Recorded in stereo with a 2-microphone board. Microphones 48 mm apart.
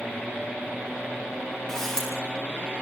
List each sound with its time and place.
1.7 s a camera shutter: 10° left (ahead or behind), 7.5 m